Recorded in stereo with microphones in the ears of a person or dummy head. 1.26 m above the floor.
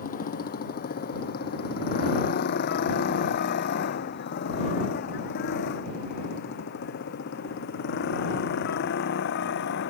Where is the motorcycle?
40° left (ahead or behind); by 9.9 s 60° left (ahead or behind).